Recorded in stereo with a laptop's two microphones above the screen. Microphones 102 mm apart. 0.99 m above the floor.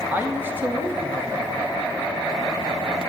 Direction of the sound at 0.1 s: 20° right (ahead or behind).